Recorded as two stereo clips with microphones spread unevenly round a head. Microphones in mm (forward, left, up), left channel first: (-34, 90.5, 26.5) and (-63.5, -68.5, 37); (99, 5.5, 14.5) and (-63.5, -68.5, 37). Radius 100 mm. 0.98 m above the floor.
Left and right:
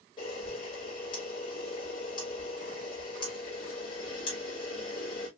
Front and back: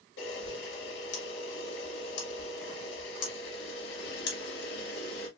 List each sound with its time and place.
0.2 s a camera shutter: 15° left, 1.9 m